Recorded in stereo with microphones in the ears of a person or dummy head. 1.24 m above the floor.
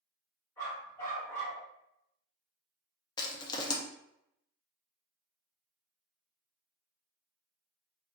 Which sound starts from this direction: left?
A dog barking, at 0.6 s.